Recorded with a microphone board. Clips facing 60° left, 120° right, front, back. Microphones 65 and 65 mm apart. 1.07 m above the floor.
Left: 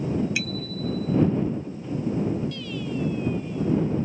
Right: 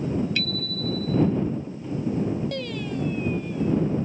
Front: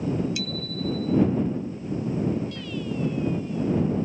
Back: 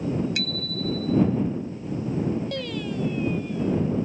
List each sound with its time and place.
0.3 s a bicycle bell: 140° left
2.5 s singing: 155° right